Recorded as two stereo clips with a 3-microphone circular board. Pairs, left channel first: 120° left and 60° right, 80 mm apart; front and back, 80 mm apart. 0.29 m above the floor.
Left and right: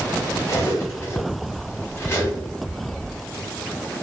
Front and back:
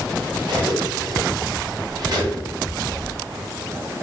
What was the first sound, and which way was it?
Cutlery clinking, 175° left.